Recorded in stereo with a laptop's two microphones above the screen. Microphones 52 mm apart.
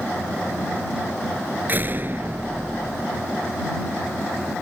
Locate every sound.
1.7 s a door slam: 40° right (ahead or behind)